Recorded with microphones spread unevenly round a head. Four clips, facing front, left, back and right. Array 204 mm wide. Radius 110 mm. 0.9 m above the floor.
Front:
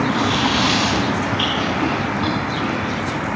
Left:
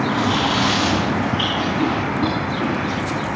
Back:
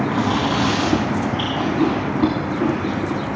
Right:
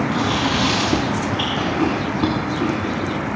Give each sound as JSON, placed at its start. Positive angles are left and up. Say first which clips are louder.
{"t": 0.1, "sound": "chewing", "louder": "left 1 dB, even", "azimuth_deg": -170, "distance_m": 4.0}